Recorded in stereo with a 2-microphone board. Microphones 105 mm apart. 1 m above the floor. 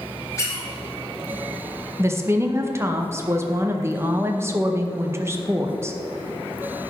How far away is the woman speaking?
About 0.7 m.